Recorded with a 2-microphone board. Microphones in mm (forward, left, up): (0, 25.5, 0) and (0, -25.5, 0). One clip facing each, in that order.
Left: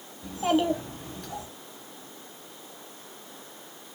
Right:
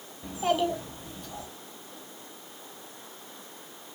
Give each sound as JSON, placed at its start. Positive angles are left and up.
{"t": 0.2, "sound": "a child speaking", "side_deg": -20, "distance_m": 0.6}